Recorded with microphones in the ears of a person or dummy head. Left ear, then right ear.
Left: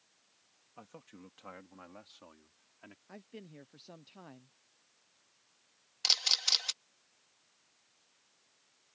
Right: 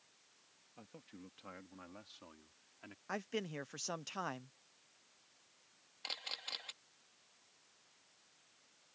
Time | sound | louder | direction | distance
0.8 | a man speaking | left 4 dB | 45° left (ahead or behind) | ?
3.1 | a man speaking | right 12 dB | 50° right (ahead or behind) | ?
6.0 | a camera shutter | left 16 dB | 70° left (ahead or behind) | ?